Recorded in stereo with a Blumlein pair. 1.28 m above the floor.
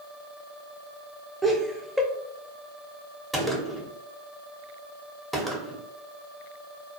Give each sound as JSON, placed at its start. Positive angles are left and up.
{"t": 1.4, "sound": "laughter", "azimuth_deg": -5, "distance_m": 0.7}
{"t": 3.3, "sound": "a gunshot", "azimuth_deg": -5, "distance_m": 0.7}